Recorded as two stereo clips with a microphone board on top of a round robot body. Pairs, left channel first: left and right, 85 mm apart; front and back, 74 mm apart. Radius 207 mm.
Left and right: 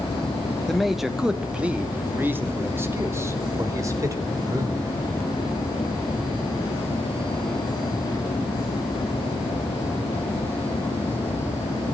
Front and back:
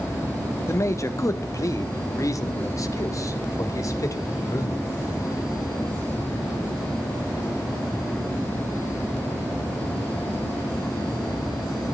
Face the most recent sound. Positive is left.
turn(degrees=-45)